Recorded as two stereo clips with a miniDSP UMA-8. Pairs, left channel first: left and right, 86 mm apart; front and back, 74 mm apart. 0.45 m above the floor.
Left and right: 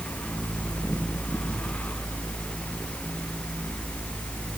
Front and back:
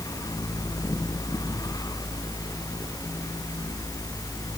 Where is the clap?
I don't hear a clap.